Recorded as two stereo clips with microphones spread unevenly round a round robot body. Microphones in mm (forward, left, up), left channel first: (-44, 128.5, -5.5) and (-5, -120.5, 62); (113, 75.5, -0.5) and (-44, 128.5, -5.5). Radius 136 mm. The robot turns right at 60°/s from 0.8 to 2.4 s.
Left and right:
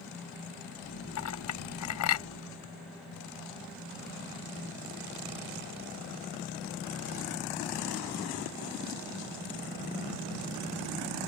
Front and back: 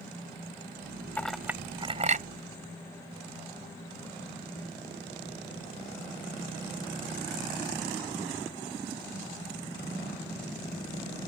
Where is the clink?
60° left; by 2.3 s 125° left.